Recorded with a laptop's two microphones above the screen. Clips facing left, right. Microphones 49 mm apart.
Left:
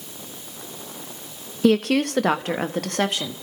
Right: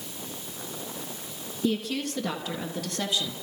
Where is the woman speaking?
70° left (ahead or behind), 0.6 m; by 3.3 s 55° left (ahead or behind), 1.5 m.